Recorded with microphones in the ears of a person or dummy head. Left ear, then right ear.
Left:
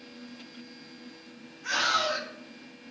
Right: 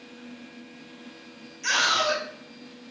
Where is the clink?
I don't hear a clink.